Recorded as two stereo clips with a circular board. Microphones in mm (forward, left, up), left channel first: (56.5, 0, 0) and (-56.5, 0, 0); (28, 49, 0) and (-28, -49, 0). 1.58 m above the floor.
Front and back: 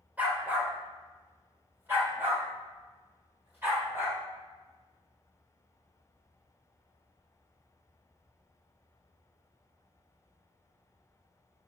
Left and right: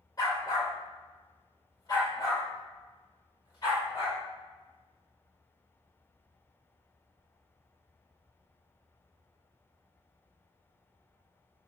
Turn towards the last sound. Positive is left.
turn(degrees=110)